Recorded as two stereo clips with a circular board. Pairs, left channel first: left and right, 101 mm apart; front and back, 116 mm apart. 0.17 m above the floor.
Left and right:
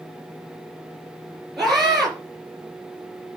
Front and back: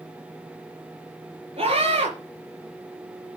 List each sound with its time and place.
1.6 s a scream: straight behind, 3.5 m